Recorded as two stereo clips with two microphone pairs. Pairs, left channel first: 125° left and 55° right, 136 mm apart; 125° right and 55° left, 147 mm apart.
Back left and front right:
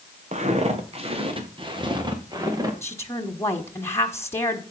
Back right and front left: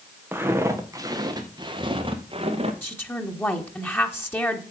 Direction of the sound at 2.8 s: 175° left.